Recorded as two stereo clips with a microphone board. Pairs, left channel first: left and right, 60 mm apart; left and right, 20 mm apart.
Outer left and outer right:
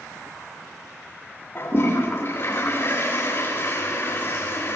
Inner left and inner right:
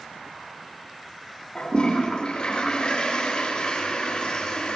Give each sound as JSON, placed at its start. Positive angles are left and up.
{"t": 1.6, "sound": "a toilet flushing", "side_deg": 45, "distance_m": 7.5}